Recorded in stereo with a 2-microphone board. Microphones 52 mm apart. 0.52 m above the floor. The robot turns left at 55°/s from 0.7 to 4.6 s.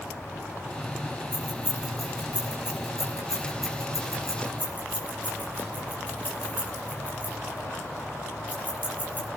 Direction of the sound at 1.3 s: 30° right (ahead or behind).